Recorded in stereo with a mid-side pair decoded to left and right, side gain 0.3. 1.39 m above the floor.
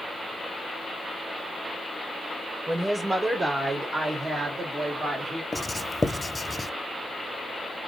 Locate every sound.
2.7 s a woman speaking: 15° right, 0.9 m; by 5.4 s 70° right, 2 m
5.5 s writing: 25° left, 0.6 m